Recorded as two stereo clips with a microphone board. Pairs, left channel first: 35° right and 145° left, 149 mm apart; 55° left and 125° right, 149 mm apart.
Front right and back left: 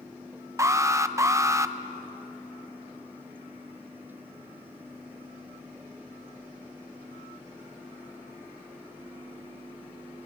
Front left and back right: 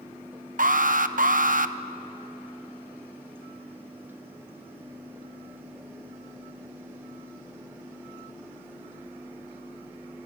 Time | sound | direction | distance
0.6 | an alarm | 145° right | 0.7 m